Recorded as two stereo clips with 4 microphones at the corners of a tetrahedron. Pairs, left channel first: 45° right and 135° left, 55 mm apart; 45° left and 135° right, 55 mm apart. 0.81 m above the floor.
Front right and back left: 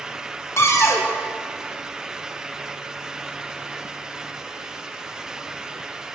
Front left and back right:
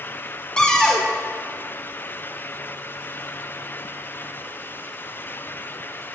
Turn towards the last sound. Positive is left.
turn(degrees=-30)